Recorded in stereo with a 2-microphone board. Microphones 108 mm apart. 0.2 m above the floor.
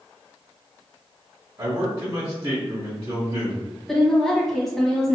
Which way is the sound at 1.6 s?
35° right (ahead or behind).